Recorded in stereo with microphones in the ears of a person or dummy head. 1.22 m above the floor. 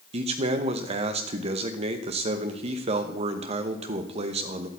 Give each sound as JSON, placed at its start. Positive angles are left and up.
{"t": 0.1, "sound": "a man speaking", "side_deg": -30, "distance_m": 1.0}